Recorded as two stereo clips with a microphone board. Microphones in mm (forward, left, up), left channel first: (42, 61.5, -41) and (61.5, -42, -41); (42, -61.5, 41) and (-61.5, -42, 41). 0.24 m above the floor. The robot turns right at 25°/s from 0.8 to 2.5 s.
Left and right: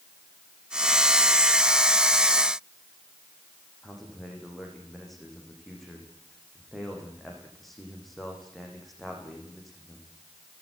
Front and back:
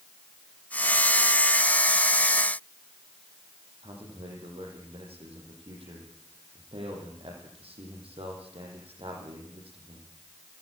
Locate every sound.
3.8 s a man speaking: 170° right, 9 m